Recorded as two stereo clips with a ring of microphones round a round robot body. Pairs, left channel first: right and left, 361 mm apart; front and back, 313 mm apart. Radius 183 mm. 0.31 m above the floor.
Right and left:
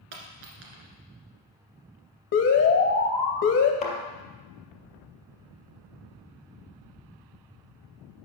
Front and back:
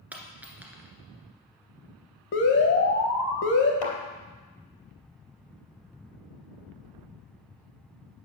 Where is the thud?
20° right, 2.5 m.